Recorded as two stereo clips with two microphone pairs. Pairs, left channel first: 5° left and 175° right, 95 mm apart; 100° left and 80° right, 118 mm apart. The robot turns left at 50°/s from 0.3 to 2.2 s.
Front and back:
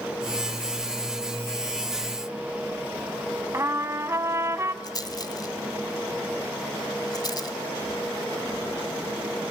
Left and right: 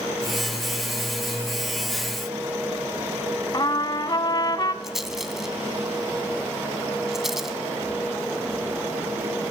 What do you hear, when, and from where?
3.5 s a trumpet: 135° left, 0.8 m
4.8 s a rattle: 5° left, 1.6 m